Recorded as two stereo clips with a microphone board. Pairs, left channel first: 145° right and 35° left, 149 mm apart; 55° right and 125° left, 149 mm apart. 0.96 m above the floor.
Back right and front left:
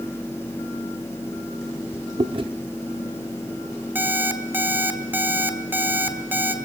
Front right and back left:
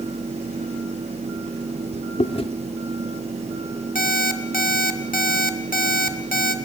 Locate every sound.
2.2 s chewing: 15° right, 0.7 m
4.0 s an alarm clock: 40° right, 1.1 m